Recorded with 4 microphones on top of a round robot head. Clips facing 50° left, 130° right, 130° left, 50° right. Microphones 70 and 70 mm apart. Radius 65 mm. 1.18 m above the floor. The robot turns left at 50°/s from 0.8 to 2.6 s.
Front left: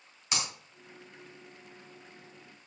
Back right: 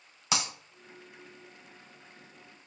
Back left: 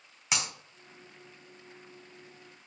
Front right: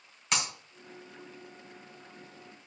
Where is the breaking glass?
145° right, 2.5 m.